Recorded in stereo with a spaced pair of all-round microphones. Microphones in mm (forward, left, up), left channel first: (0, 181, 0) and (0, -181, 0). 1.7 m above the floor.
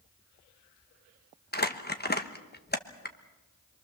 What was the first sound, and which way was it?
Crumpling, 25° left (ahead or behind).